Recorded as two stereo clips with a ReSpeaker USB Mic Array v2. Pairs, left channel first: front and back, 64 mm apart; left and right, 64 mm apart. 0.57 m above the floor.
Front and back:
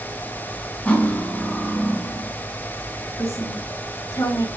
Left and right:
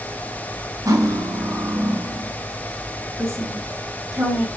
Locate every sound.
0.8 s cutlery clinking: 70° right, 2.5 m
3.2 s a woman speaking: 35° right, 3 m